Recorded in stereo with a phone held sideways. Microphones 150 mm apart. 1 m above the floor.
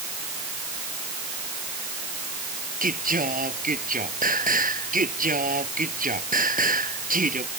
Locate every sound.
2.8 s singing: 70° right (ahead or behind)